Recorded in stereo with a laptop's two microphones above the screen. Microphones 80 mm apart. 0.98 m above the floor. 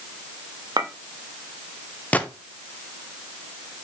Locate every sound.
0.8 s a clink: 60° right (ahead or behind), 0.9 m
2.1 s a gunshot: 20° left (ahead or behind), 0.8 m